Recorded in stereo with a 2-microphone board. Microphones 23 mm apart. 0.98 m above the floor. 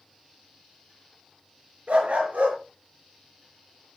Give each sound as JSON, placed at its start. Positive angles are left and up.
{"t": 1.9, "sound": "a dog barking", "side_deg": -80, "distance_m": 5.5}